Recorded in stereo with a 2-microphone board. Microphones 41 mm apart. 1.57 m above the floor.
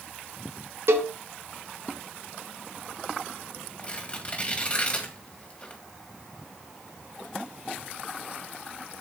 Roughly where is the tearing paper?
Left.